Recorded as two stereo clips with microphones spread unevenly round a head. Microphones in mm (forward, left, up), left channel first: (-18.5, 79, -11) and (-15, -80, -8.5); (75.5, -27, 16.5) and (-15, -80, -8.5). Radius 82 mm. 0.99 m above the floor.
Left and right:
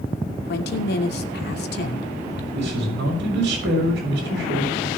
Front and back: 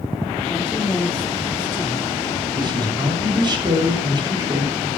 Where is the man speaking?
105° right, 6.5 m.